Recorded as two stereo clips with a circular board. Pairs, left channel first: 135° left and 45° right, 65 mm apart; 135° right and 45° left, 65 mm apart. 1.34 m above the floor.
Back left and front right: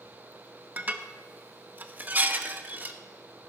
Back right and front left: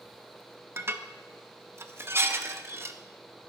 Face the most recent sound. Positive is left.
turn(degrees=10)